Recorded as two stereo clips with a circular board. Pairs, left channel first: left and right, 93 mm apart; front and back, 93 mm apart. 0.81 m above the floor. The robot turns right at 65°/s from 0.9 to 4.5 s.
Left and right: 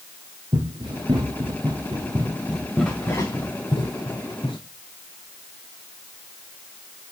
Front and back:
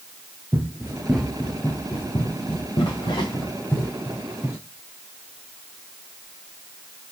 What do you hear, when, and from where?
0.5 s running footsteps: 115° right, 3.5 m; by 4.6 s 115° left, 5.5 m